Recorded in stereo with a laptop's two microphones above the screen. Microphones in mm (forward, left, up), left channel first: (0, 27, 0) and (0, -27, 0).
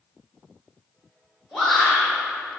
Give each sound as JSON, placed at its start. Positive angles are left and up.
{"t": 1.5, "sound": "a shout", "side_deg": 5, "distance_m": 0.9}